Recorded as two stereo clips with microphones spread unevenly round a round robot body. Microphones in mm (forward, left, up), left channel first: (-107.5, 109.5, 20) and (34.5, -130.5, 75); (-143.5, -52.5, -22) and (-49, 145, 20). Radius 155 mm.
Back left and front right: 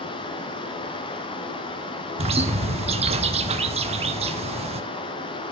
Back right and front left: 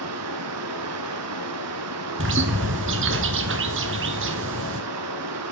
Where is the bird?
10° left, 1.0 m.